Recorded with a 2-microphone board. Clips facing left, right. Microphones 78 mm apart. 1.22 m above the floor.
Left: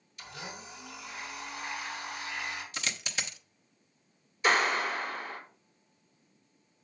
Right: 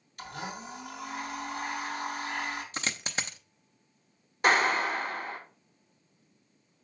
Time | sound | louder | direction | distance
0.2 | a blender | right 5 dB | 55° right (ahead or behind) | 2.5 m
2.7 | a dropped coin | right 3 dB | 35° right (ahead or behind) | 0.7 m
4.4 | a clap | right 2 dB | 60° right (ahead or behind) | 3 m